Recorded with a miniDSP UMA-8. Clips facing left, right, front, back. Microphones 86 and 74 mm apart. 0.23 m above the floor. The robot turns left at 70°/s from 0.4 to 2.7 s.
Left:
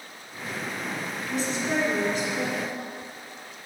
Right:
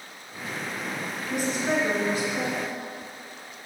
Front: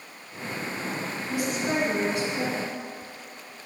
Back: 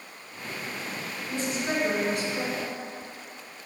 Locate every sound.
1.3 s a woman speaking: 70° right, 2.5 m; by 2.7 s 170° right, 2.5 m